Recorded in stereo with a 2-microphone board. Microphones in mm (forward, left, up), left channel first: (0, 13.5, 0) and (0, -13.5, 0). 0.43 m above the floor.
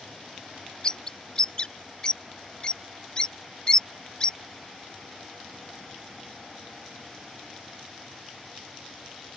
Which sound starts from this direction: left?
A bird, at 0.8 s.